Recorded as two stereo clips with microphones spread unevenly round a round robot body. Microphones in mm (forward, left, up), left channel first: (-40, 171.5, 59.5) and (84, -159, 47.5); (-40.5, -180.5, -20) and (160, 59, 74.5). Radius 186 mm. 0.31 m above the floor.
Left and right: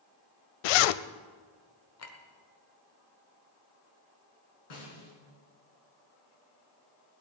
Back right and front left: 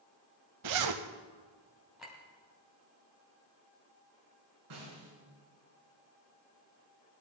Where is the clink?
150° left, 1.5 m.